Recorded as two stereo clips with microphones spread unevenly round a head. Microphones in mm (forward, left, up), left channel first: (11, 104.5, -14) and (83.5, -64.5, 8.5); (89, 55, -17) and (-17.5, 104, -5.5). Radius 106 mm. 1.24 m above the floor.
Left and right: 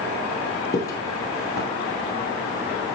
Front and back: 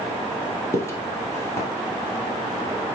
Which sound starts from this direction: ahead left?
Footsteps, at 0.7 s.